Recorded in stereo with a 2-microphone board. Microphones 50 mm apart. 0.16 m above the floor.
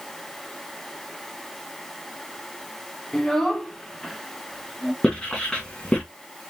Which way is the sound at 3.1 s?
10° left (ahead or behind).